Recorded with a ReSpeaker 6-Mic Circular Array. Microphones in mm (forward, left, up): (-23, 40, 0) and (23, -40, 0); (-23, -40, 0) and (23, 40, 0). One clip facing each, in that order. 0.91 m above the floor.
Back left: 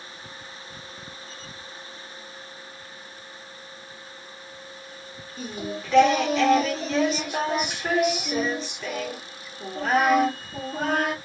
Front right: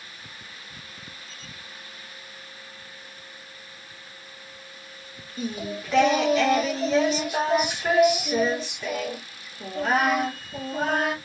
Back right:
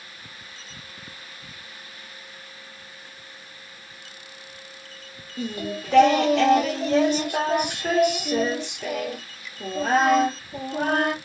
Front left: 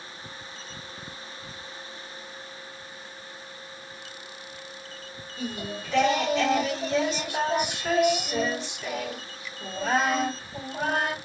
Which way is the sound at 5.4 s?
150° right.